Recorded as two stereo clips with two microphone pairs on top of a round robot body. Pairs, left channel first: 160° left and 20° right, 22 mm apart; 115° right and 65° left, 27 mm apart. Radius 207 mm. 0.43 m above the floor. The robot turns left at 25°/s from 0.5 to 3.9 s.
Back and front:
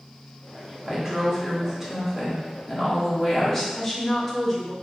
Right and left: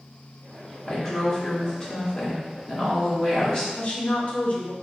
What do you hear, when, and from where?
0.9 s a woman speaking: 65° right, 1.5 m; by 3.6 s 135° right, 1.5 m
3.8 s a woman speaking: 125° right, 1.0 m; by 4.7 s 130° right, 1.0 m